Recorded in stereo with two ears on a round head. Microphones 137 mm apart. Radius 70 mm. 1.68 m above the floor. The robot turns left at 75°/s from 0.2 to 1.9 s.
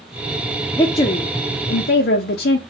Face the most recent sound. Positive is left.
turn(degrees=80)